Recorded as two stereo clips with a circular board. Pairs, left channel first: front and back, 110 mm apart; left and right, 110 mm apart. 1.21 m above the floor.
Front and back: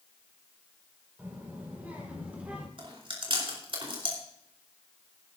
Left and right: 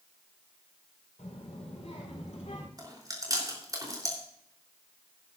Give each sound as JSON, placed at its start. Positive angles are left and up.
{"t": 1.2, "sound": "a child speaking", "azimuth_deg": 105, "distance_m": 4.5}
{"t": 2.8, "sound": "chewing", "azimuth_deg": -145, "distance_m": 3.5}